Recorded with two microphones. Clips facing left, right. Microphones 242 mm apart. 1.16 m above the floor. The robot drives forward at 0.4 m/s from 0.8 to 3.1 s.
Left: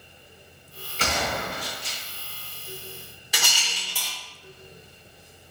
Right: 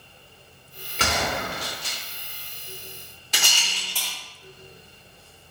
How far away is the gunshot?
About 1.6 m.